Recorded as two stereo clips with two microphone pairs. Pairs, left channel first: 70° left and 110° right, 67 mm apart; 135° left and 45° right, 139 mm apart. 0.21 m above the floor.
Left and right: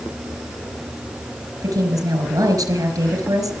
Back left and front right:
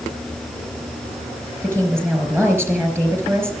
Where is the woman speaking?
115° right, 4 m.